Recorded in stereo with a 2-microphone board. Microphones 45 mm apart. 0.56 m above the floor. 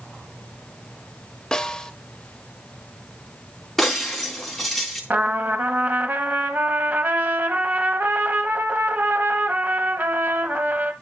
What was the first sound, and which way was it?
A snare drum, 10° left (ahead or behind).